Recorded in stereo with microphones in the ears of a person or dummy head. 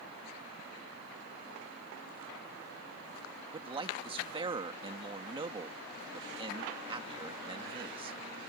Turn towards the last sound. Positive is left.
turn(degrees=-25)  # may be behind; listen again after turning